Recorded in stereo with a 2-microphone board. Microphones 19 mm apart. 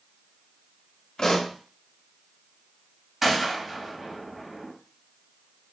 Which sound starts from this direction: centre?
A gunshot, at 3.2 s.